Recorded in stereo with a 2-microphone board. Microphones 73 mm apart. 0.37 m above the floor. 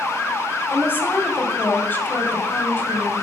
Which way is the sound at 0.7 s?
30° left (ahead or behind).